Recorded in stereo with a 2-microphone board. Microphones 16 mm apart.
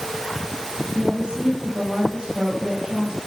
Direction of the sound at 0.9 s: 75° right (ahead or behind).